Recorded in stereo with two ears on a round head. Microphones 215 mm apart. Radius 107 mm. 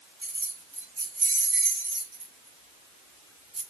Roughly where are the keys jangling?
Centre.